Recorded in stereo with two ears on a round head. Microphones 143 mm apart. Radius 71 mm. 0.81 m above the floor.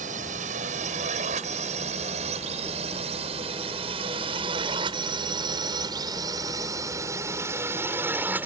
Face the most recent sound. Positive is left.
turn(degrees=-10)  # may be behind; listen again after turning